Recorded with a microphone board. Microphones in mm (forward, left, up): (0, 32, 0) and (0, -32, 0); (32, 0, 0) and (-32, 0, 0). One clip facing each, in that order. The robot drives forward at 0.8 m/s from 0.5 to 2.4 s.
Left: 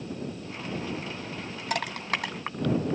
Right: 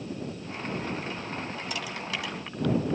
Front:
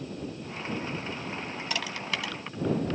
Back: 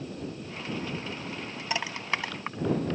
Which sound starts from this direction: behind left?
Crushing, at 1.7 s.